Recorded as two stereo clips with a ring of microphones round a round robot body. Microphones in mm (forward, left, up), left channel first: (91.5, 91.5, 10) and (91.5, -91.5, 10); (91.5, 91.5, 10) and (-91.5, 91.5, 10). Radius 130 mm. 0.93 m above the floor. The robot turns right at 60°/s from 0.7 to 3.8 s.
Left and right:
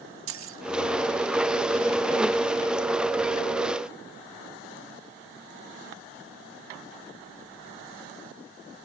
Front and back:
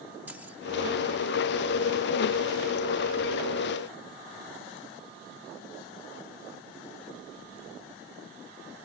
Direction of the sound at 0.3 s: 95° right.